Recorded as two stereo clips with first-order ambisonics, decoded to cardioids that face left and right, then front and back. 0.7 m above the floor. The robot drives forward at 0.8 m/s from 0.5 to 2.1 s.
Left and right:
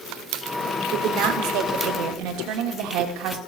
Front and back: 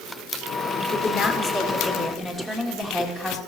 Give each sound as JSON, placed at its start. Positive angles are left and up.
{"t": 0.9, "sound": "a woman speaking", "azimuth_deg": -55, "distance_m": 2.0}